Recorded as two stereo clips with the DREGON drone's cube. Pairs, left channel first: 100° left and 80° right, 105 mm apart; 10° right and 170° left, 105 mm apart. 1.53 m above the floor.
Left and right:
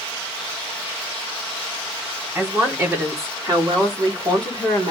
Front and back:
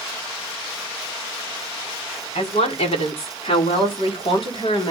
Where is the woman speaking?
10° right, 4.5 m; by 4.9 s 45° right, 4 m.